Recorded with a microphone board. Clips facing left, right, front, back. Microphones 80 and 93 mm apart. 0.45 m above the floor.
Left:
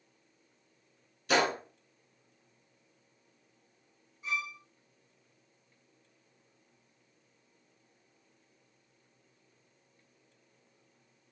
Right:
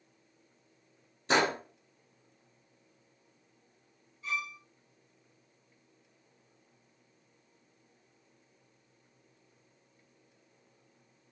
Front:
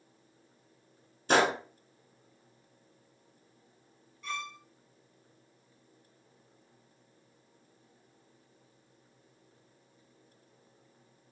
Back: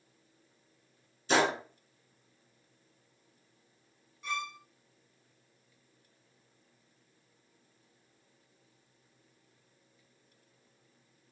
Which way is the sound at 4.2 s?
130° left.